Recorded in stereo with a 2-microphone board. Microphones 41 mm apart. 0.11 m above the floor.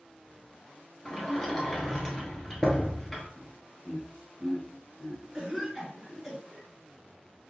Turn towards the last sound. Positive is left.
turn(degrees=-10)  # may be behind; listen again after turning